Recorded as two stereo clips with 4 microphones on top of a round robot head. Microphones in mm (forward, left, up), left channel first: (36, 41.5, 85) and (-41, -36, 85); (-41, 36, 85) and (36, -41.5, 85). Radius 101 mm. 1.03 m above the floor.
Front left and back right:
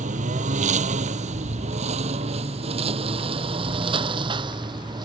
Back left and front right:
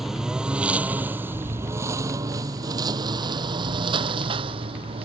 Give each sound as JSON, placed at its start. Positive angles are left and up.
{"t": 0.0, "sound": "a lawn mower", "azimuth_deg": -130}